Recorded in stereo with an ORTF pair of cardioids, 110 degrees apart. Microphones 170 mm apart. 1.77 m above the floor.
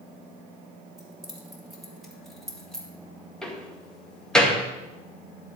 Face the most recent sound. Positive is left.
turn(degrees=5)